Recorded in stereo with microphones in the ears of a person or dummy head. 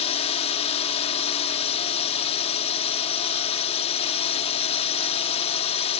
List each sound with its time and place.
0.0 s a drone: 30° left (ahead or behind)